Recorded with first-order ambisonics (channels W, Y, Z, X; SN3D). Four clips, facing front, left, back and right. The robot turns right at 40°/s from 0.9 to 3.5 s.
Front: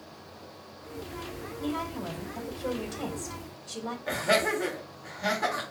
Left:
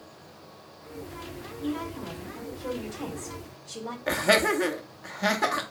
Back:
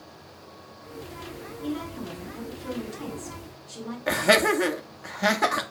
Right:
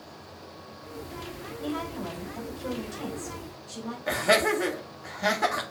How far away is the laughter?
About 0.7 m.